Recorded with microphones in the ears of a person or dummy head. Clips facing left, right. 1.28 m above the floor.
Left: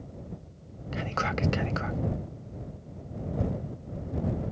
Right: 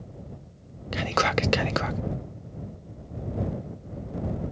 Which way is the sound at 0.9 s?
65° right (ahead or behind).